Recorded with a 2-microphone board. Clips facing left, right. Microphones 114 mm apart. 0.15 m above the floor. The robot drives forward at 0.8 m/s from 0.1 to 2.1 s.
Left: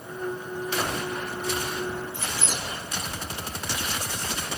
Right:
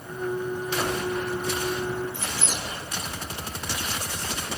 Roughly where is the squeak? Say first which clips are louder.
Even; centre.